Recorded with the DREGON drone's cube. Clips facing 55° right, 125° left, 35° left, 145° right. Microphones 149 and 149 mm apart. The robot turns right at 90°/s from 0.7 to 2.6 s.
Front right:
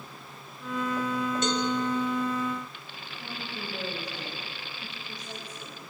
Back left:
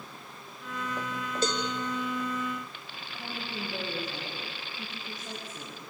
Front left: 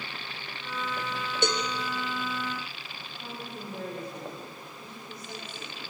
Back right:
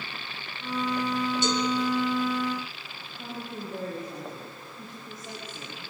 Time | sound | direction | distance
1.4 | a cowbell | 65° left | 2 m
3.1 | a woman speaking | 170° left | 6.5 m